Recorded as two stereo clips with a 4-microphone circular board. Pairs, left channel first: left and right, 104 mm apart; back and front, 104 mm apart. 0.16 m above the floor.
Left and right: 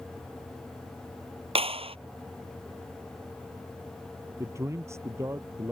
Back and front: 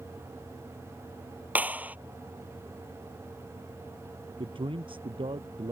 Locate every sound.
1.6 s a clap: 75° right
4.4 s a man speaking: 30° right